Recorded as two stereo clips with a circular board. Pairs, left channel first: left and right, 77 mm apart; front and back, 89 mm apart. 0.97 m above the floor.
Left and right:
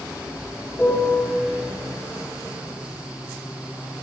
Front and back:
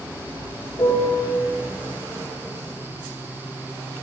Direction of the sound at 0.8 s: 20° left.